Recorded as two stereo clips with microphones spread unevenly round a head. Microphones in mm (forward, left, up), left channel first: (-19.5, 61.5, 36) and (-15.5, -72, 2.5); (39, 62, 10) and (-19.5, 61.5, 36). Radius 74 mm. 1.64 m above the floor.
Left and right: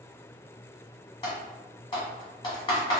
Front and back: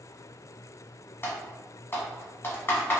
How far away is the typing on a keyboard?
About 1.2 m.